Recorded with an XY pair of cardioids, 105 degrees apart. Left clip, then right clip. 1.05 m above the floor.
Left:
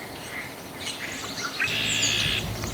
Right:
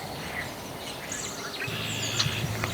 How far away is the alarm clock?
About 2.5 m.